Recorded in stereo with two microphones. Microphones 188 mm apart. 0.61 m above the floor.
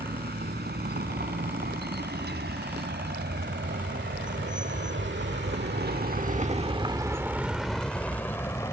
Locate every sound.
0.0 s a vehicle: 60° right (ahead or behind); by 8.7 s 15° left (ahead or behind)